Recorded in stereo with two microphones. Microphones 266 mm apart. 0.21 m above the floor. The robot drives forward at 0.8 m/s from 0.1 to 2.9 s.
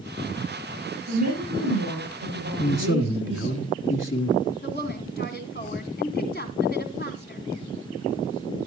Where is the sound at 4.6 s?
40° left (ahead or behind), 1.6 m.